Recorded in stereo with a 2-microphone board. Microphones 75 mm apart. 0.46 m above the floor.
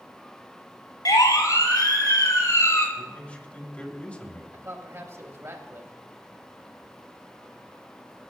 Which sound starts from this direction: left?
A siren, at 1.1 s.